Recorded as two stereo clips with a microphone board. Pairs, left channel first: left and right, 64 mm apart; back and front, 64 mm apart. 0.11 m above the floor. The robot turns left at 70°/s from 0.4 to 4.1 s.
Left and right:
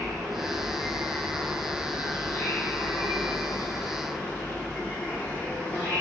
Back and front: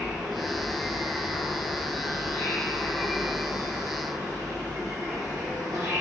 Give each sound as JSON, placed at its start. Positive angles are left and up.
{"t": 0.0, "sound": "an insect", "azimuth_deg": -75, "distance_m": 1.1}